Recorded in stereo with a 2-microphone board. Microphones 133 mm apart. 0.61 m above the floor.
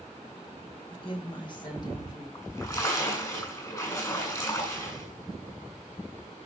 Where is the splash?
25° left (ahead or behind), 7.5 m.